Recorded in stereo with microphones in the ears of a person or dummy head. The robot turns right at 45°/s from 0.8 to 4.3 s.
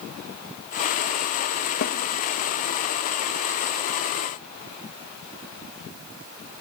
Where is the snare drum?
45° left (ahead or behind), 1.1 m; by 2.0 s 35° left (ahead or behind), 1.1 m.